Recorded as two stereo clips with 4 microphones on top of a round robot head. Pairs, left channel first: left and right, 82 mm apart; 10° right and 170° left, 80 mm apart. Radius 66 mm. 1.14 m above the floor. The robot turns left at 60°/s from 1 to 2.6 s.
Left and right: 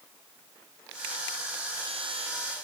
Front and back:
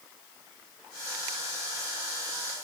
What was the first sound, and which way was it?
Only background noise.